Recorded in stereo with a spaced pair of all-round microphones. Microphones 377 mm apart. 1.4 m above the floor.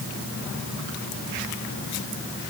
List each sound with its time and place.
Only background noise.